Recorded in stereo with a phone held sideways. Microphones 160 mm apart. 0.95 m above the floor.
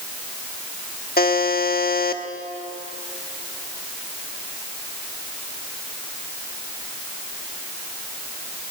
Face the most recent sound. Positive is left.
turn(degrees=75)  # may be behind; listen again after turning